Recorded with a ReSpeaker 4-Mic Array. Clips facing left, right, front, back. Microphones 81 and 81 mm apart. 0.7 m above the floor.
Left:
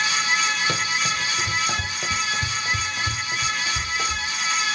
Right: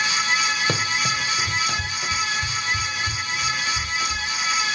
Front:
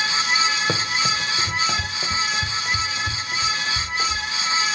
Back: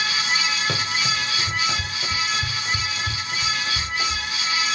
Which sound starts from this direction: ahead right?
Running footsteps, at 0.7 s.